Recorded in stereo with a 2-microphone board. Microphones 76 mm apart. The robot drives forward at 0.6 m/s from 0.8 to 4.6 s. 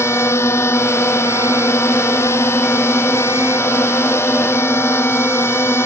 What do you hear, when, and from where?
0.0 s a drone: 35° left (ahead or behind)